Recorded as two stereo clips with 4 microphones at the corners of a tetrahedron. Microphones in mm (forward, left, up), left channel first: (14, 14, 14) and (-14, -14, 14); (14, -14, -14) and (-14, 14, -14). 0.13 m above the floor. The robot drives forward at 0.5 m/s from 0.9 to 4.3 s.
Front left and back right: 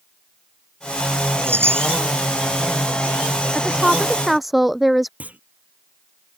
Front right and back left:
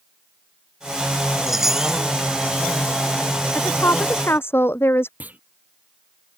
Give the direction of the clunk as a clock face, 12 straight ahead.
6 o'clock.